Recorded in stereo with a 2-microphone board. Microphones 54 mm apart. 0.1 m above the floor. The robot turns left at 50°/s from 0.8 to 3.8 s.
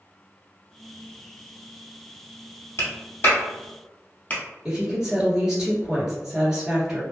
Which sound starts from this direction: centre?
A woman speaking, at 4.7 s.